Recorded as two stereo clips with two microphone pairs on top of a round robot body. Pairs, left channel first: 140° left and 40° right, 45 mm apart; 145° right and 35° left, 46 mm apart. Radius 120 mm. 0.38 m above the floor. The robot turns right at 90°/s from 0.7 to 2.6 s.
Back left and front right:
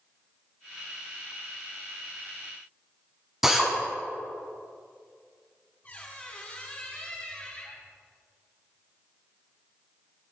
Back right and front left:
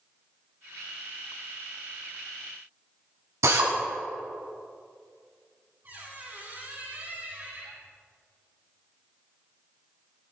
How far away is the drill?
About 3.5 m.